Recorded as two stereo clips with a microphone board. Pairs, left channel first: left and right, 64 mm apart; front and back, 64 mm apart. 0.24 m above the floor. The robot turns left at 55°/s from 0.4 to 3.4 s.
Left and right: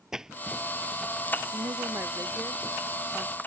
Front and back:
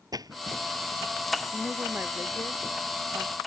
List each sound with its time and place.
0.1 s a splash: 170° right; by 1.0 s 155° left
1.5 s a woman speaking: 100° right; by 3.4 s 160° left